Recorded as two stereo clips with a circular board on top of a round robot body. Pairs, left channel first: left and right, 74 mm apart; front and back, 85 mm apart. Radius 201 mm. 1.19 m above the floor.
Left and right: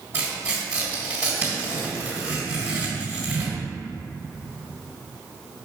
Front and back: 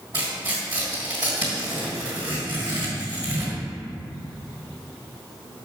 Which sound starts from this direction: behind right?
Tearing paper, at 0.1 s.